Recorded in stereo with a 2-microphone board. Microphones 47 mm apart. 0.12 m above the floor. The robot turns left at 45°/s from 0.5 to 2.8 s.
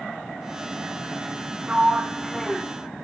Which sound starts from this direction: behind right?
A sliding door, at 1.7 s.